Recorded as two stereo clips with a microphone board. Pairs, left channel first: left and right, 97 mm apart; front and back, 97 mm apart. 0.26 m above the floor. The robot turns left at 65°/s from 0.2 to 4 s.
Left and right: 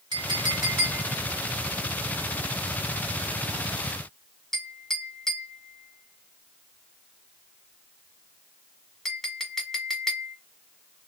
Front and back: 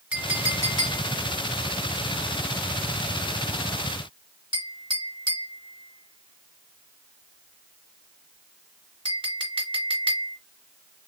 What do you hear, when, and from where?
0.1 s a clink: 110° right, 1.4 m; by 10.4 s 5° left, 1.4 m